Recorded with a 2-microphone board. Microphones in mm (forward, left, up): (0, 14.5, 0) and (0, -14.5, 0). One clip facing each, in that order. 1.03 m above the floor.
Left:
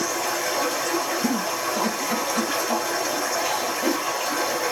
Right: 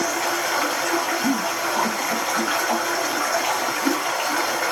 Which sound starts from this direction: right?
Running water, at 0.0 s.